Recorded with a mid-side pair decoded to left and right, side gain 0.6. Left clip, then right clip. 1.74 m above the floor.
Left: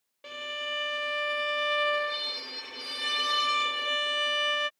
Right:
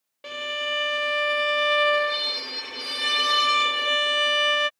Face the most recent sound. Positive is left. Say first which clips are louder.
# right 6 dB
turn(degrees=-30)